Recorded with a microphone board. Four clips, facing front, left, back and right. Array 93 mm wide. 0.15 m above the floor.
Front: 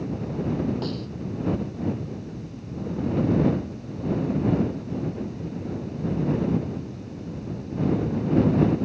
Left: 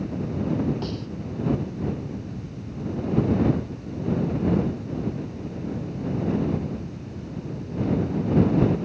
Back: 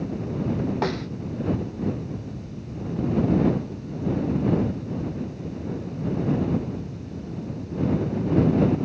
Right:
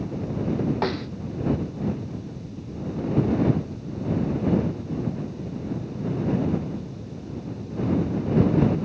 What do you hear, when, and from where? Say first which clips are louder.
0.8 s a snare drum: right 5 dB, back 4 dB; 130° right